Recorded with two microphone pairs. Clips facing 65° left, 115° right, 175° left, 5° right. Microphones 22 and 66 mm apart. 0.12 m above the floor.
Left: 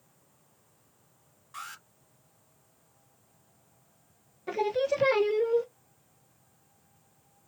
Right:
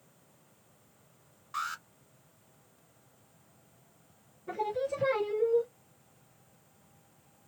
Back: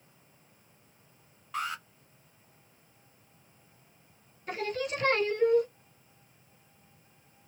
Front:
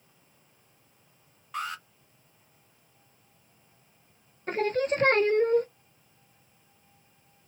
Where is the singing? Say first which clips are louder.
Left 5 dB, front 7 dB; 45° left, 0.6 m.